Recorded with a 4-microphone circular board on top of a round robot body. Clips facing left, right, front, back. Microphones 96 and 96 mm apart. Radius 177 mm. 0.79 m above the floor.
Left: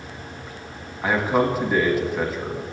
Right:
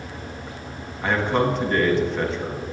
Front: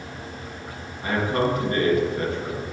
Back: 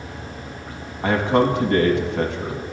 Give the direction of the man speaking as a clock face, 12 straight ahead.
6 o'clock.